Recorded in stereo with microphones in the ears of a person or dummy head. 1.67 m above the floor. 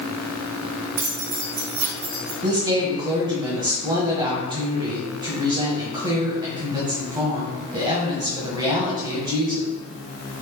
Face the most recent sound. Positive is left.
turn(degrees=-20)  # may be behind; listen again after turning